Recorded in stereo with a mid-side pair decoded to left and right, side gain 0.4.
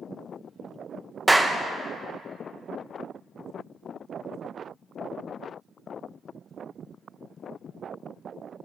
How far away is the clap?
About 0.9 m.